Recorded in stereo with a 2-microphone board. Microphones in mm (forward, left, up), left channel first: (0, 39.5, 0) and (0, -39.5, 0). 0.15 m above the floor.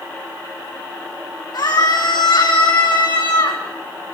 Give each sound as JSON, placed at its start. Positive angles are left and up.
{"t": 1.5, "sound": "a scream", "side_deg": 65, "distance_m": 6.0}